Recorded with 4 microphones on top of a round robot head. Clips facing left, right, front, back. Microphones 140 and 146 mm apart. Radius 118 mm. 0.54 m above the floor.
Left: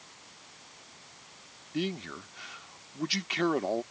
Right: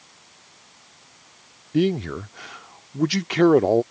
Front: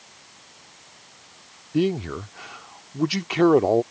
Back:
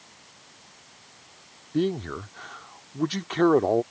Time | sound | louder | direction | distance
1.7 | a man speaking | right 13 dB, front 3 dB | 80° right | ?